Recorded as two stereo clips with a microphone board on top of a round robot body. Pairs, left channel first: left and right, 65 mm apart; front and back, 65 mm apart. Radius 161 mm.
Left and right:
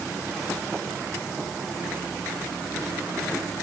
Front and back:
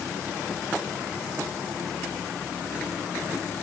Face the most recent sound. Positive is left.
No sound to turn to.